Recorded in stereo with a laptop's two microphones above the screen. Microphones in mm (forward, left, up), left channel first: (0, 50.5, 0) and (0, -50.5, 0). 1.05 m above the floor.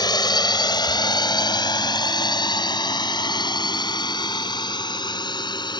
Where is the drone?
45° left (ahead or behind).